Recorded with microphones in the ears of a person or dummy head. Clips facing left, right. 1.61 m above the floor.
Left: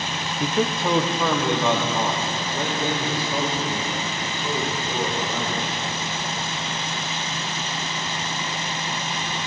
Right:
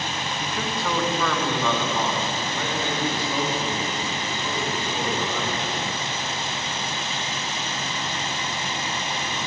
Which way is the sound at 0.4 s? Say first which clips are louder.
Left 8 dB; 35° left (ahead or behind).